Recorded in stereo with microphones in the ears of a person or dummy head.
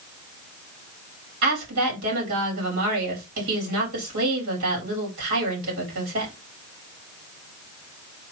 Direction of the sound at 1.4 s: 75° right (ahead or behind).